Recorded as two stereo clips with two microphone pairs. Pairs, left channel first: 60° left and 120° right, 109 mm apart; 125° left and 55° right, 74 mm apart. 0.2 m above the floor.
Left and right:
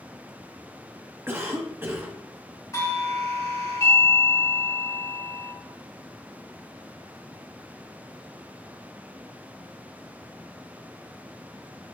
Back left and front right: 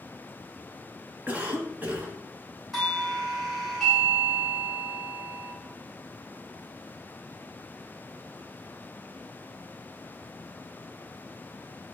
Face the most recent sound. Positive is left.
turn(degrees=40)